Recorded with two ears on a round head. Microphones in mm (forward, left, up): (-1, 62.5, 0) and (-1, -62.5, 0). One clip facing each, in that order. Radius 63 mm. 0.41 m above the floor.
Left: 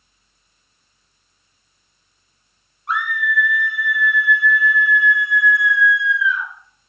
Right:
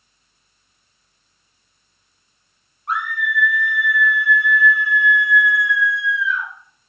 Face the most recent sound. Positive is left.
turn(degrees=75)  # may be behind; listen again after turning